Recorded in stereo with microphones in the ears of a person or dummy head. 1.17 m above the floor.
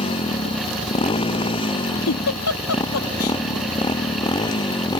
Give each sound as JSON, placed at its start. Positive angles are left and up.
{"t": 0.0, "sound": "a motorcycle", "side_deg": 25}
{"t": 2.1, "sound": "a giggle", "side_deg": 85}